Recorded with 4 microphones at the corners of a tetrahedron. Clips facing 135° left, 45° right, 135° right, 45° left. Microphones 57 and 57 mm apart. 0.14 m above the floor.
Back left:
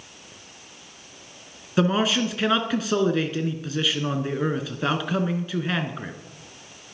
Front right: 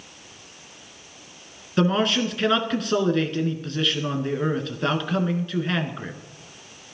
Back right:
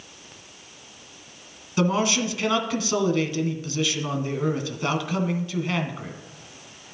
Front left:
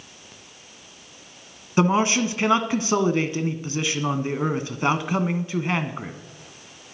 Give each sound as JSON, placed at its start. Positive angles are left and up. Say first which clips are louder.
{"t": 1.8, "sound": "a man speaking", "louder": "even, front left 3 dB", "azimuth_deg": 55, "distance_m": 1.2}